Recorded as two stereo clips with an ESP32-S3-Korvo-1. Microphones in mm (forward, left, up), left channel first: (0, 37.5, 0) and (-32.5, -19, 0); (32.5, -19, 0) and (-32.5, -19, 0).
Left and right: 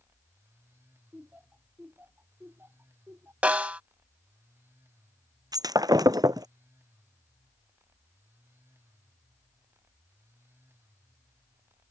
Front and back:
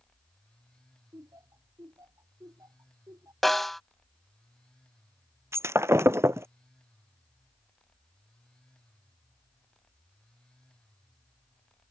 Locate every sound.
1.1 s laughter: straight behind; by 3.3 s 170° right
3.4 s a snare drum: 80° right
5.5 s breaking glass: 135° right